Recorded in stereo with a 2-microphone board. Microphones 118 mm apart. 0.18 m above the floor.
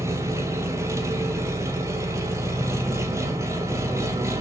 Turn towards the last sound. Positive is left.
turn(degrees=-25)  # may be behind; listen again after turning